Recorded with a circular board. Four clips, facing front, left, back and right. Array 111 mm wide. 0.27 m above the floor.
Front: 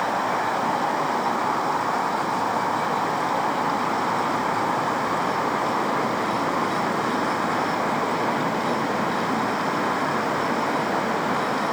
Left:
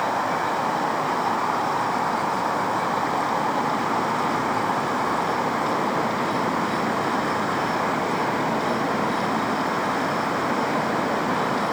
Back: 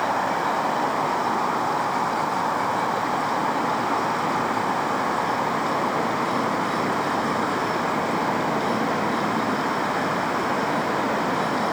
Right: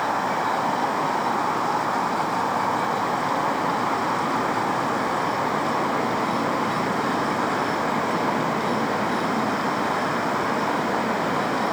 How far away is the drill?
No drill in this recording.